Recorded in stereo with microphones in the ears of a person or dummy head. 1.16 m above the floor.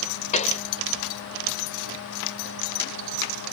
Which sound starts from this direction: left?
A pop, at 0.3 s.